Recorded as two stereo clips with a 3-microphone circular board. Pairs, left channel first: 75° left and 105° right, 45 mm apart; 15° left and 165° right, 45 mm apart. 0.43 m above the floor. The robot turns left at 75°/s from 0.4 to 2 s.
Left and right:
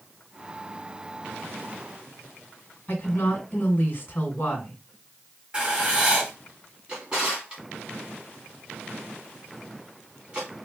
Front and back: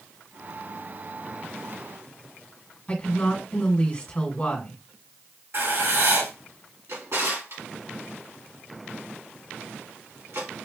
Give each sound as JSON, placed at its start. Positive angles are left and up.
{"t": 2.9, "sound": "a woman speaking", "azimuth_deg": 65, "distance_m": 1.8}
{"t": 5.5, "sound": "writing", "azimuth_deg": -170, "distance_m": 2.5}
{"t": 6.9, "sound": "a drawer", "azimuth_deg": -175, "distance_m": 2.5}